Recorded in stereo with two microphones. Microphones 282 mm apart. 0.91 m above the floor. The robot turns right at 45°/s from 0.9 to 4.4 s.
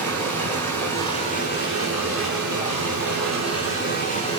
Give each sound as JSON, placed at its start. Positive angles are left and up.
{"t": 0.0, "sound": "running water", "azimuth_deg": 5, "distance_m": 7.5}